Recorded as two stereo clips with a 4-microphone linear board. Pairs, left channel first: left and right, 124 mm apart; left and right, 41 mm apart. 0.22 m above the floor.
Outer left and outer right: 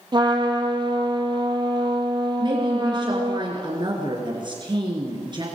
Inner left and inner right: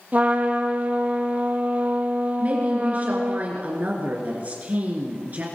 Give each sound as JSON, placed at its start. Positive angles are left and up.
{"t": 0.1, "sound": "a trumpet", "side_deg": -35, "distance_m": 2.5}
{"t": 2.4, "sound": "a woman speaking", "side_deg": -40, "distance_m": 3.5}